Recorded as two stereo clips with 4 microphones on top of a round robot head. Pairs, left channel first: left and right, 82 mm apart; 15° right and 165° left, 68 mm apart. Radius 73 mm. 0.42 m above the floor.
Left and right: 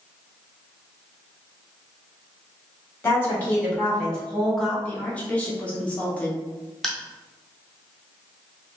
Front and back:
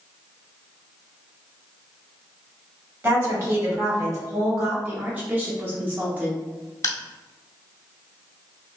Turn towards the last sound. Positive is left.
turn(degrees=5)